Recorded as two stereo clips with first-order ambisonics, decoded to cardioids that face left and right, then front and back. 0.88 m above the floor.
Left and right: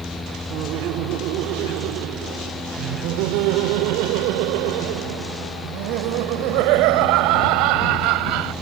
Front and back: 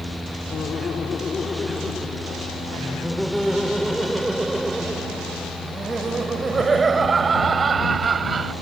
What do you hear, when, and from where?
0.5 s laughter: 65° right; by 8.5 s 110° right